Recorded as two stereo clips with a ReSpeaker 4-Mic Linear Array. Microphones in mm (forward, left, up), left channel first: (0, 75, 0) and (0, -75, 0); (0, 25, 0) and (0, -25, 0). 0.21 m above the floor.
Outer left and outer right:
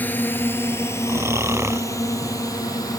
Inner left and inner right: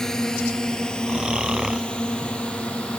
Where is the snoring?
15° right (ahead or behind).